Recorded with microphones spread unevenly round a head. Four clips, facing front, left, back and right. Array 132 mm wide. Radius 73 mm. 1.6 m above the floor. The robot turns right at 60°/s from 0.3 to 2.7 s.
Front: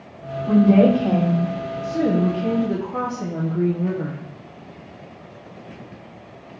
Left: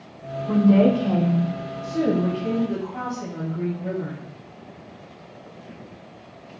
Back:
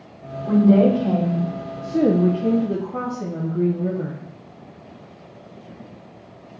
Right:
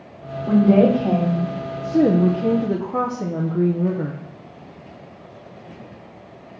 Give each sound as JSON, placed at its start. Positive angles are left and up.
{"t": 0.5, "sound": "a woman speaking", "azimuth_deg": -115, "distance_m": 3.5}
{"t": 1.8, "sound": "a woman speaking", "azimuth_deg": -140, "distance_m": 0.8}